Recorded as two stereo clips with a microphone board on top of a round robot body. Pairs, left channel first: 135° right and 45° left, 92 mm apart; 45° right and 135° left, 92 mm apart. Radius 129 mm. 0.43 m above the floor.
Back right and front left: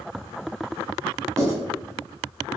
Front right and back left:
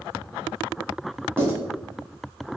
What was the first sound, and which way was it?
Writing, 85° left.